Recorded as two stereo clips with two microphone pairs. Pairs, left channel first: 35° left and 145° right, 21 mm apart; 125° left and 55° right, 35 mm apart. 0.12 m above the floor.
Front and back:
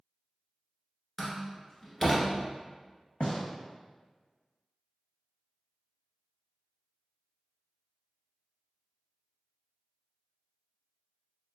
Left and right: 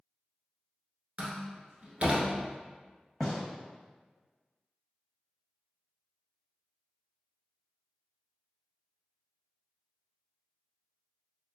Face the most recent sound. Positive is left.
turn(degrees=40)